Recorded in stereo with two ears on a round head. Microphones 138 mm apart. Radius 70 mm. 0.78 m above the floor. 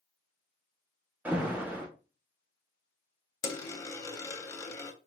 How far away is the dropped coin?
About 0.6 m.